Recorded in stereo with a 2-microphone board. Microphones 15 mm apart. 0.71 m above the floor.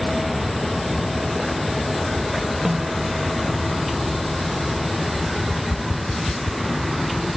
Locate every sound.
2.6 s a snare drum: 35° right (ahead or behind)
5.4 s tapping: 75° left (ahead or behind)